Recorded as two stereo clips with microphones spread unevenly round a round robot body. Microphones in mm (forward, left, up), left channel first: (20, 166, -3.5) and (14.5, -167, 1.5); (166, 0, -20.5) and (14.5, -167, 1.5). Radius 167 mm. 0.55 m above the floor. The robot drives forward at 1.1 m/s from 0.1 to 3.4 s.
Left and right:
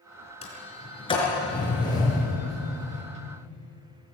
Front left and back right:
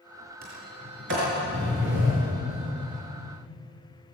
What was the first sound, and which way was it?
A sliding door, 160° left.